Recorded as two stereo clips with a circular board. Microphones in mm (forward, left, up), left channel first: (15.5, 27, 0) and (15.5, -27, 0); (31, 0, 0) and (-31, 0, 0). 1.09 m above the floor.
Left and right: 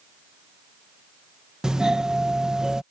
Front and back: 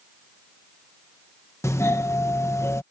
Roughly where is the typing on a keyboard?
No typing on a keyboard in this recording.